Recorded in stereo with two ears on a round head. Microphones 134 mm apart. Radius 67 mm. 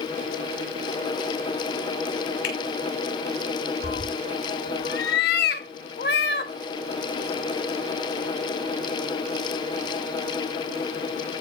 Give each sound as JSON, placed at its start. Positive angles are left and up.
{"t": 2.4, "sound": "a finger snap", "side_deg": 80, "distance_m": 6.0}
{"t": 3.8, "sound": "a cat meowing", "side_deg": 80, "distance_m": 1.5}